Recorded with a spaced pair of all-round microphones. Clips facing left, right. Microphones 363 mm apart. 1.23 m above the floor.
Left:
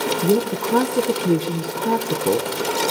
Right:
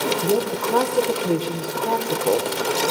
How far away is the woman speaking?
About 0.8 m.